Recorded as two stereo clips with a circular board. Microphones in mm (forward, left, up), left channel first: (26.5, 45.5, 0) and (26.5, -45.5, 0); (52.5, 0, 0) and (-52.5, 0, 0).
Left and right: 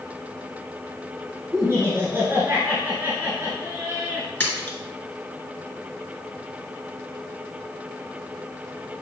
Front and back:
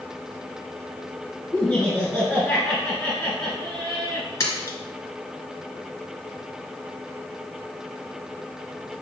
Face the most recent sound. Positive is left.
turn(degrees=40)